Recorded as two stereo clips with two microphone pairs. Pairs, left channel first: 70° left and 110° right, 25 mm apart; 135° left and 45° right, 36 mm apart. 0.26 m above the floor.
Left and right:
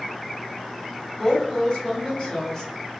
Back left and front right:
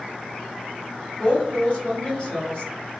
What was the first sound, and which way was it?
A woman speaking, 100° left.